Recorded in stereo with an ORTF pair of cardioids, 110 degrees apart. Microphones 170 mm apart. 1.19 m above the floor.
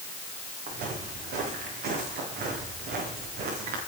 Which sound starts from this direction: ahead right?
Footsteps, at 0.7 s.